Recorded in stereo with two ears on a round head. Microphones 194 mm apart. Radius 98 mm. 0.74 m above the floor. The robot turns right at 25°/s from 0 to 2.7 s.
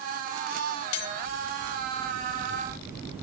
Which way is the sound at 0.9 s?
75° left (ahead or behind).